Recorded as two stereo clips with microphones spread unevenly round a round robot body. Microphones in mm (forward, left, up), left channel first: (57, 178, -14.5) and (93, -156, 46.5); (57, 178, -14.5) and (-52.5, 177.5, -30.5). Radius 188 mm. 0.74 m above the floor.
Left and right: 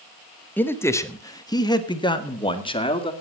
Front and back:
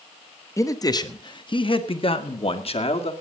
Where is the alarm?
I don't hear an alarm.